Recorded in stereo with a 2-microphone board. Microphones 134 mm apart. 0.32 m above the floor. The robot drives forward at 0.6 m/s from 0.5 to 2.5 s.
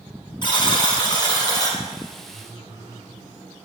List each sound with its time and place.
0.4 s a buzzer: 35° left (ahead or behind), 3.5 m; by 1.8 s 30° left (ahead or behind), 4 m
2.3 s a phone buzzing: 35° right (ahead or behind), 7 m